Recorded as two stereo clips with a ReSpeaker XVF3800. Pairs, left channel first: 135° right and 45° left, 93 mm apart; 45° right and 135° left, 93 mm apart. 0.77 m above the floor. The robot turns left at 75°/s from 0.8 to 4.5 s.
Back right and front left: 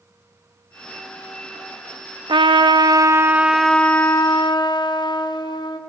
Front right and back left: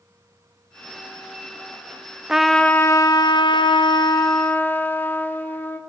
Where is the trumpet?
55° left, 0.6 m; by 5.8 s 110° right, 0.6 m.